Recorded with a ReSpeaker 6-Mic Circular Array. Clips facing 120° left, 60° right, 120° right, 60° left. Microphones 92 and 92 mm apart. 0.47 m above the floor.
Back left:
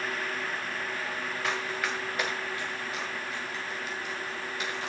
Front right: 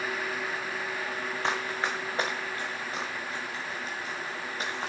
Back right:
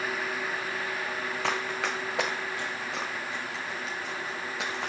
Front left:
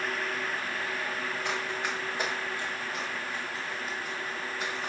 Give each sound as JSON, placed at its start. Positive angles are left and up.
{"t": 1.4, "sound": "running footsteps", "azimuth_deg": -125, "distance_m": 2.5}